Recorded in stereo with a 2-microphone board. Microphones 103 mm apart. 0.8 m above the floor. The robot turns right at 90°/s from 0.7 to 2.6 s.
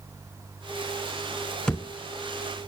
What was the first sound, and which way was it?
A thud, 10° left (ahead or behind).